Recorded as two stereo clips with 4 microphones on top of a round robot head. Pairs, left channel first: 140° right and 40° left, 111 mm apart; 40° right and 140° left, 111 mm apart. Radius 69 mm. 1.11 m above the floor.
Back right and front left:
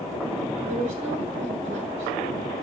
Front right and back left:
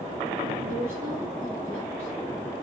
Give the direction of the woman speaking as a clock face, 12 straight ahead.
10 o'clock.